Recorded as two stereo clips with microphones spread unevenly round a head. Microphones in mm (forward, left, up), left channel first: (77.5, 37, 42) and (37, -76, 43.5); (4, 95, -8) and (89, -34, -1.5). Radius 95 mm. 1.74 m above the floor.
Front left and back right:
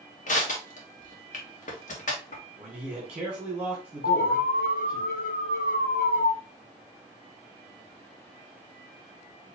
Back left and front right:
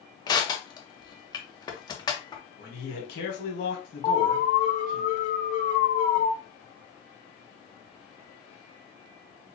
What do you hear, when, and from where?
0.3 s crushing: 60° left, 1.3 m
2.6 s a man speaking: 165° left, 1.7 m
4.0 s an alarm: 85° left, 1.0 m